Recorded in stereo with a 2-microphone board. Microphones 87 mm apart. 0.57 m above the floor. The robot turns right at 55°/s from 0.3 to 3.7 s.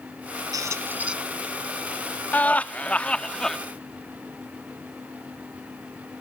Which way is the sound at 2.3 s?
20° left (ahead or behind).